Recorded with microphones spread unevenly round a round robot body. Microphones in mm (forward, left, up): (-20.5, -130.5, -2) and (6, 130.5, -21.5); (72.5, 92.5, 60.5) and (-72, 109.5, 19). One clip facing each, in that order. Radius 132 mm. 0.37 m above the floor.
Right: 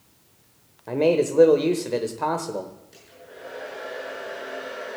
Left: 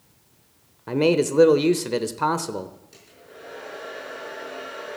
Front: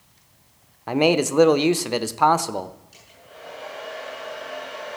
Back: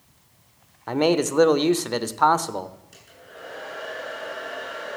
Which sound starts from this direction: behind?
A hair dryer, at 2.9 s.